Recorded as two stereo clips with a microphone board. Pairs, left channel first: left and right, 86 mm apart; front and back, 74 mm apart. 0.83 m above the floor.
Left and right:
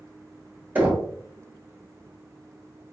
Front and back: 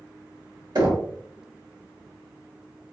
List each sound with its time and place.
0.8 s knocking: 160° right, 1.6 m